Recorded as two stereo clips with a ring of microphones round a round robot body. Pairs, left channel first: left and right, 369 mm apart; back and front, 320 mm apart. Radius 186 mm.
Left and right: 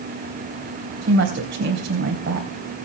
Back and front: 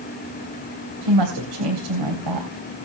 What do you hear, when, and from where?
1.0 s a woman speaking: 30° right, 3 m